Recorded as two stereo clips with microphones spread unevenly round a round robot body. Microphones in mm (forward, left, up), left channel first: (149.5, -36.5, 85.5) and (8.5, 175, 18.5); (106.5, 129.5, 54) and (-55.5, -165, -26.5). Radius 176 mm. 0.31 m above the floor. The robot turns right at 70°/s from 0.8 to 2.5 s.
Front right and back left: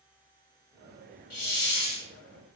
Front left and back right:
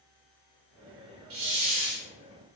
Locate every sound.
1.3 s a hiss: 95° right, 0.9 m; by 2.1 s 40° right, 0.9 m